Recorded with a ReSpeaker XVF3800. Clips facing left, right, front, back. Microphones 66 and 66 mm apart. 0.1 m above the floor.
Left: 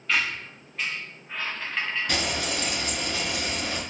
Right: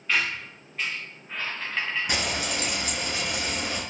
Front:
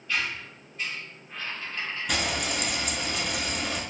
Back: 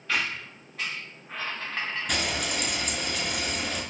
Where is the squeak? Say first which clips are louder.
Even, back 1 dB; straight behind, 0.7 m.